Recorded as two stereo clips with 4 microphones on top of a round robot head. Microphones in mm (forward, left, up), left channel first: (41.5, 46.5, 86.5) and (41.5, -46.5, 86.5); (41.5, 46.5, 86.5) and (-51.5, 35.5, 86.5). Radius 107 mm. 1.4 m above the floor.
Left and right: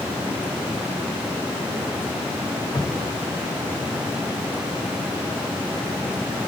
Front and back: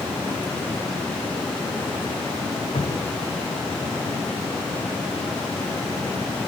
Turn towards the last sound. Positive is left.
turn(degrees=30)